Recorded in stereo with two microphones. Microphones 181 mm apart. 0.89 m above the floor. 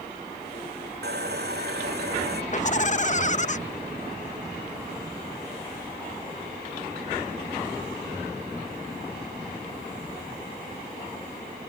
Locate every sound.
1.0 s sawing: 70° right (ahead or behind)
2.5 s laughter: 45° left (ahead or behind)